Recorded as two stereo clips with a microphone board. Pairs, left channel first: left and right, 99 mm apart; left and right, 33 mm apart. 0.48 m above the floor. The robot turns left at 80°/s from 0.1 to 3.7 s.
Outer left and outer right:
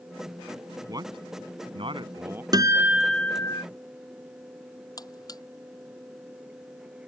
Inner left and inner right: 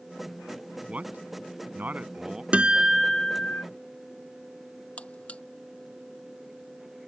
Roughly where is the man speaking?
Right.